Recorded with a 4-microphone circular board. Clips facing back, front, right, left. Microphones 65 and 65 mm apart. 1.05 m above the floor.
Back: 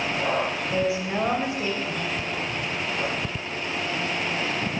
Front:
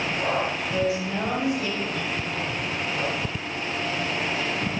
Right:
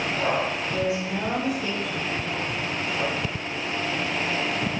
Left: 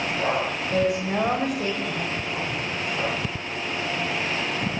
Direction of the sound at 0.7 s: 115° left.